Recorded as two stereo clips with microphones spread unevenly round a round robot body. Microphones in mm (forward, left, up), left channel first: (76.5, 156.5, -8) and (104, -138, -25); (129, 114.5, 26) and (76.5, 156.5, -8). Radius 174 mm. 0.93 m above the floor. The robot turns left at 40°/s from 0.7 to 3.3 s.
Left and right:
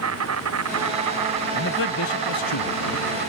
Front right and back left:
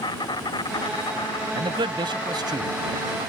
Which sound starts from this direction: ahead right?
An insect, at 0.0 s.